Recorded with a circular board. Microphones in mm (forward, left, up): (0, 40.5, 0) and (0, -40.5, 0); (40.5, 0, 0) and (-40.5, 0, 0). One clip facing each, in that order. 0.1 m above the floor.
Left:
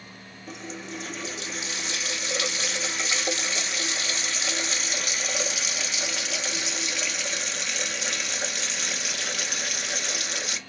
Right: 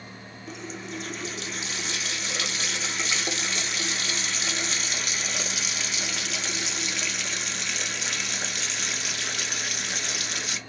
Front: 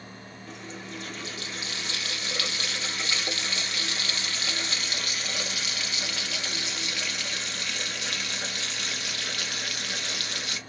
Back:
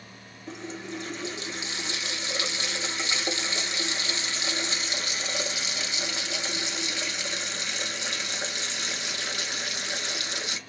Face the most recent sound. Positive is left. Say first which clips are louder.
# even, back 5 dB
turn(degrees=180)